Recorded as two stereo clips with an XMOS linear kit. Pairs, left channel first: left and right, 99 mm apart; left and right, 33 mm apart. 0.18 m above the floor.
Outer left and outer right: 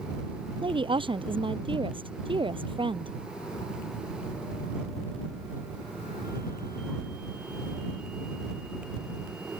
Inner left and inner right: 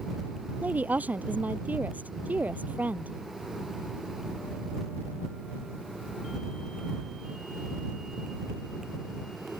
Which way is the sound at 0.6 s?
60° right (ahead or behind).